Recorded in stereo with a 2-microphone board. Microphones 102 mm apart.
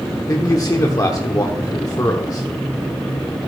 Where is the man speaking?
35° left (ahead or behind), 0.8 m.